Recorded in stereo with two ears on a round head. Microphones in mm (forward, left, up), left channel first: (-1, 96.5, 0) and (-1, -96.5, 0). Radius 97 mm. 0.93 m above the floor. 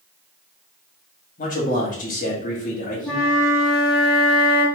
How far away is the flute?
About 2.0 m.